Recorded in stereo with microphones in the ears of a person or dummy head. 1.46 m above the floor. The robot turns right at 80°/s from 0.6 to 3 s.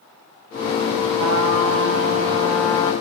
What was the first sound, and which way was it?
A trumpet, 115° right.